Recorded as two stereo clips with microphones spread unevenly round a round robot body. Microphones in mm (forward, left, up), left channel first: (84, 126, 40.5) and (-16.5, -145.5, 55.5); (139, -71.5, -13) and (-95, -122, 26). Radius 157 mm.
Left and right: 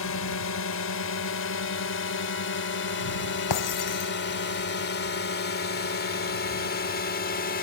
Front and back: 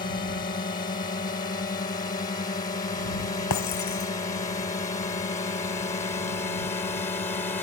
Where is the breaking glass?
50° left.